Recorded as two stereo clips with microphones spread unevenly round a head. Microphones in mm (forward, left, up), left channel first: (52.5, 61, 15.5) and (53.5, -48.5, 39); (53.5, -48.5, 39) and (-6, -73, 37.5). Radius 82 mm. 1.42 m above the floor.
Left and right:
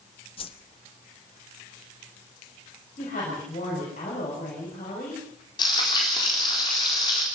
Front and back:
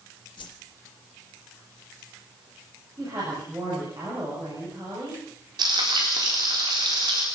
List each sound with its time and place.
0.4 s a whoosh: 45° left, 1.5 m
3.0 s a woman speaking: 135° left, 7.5 m
5.6 s frying: 155° left, 4 m